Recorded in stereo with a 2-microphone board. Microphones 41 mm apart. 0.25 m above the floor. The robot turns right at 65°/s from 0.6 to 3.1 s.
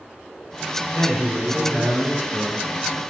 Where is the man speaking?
165° left, 1.9 m; by 2.7 s 85° right, 1.9 m.